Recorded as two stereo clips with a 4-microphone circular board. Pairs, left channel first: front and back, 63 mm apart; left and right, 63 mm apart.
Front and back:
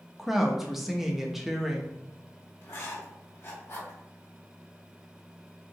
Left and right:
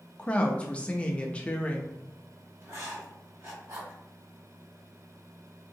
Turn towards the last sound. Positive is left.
turn(degrees=-45)